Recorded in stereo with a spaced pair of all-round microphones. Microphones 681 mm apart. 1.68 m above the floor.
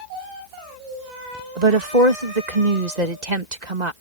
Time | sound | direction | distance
1.6 | a woman speaking | 85° right | ?